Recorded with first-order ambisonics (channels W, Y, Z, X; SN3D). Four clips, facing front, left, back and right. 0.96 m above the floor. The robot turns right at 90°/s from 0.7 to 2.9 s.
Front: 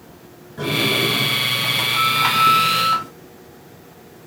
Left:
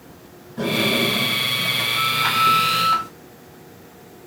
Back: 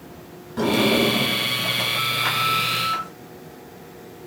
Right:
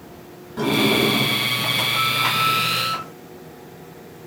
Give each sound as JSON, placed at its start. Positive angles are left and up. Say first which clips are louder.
{"t": 0.6, "sound": "a sliding door", "louder": "right 2 dB, even", "azimuth_deg": -150, "distance_m": 1.4}